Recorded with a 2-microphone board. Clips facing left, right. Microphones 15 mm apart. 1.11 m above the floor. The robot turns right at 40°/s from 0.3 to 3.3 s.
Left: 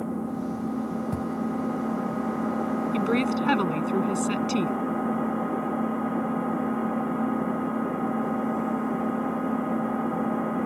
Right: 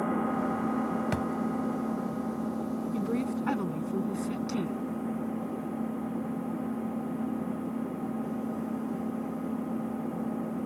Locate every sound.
0.0 s an engine running: 40° right; by 10.7 s 80° left
1.1 s a thud: 60° right (ahead or behind); by 1.3 s 65° right (ahead or behind)
2.9 s a woman speaking: 55° left (ahead or behind); by 4.8 s 70° left (ahead or behind)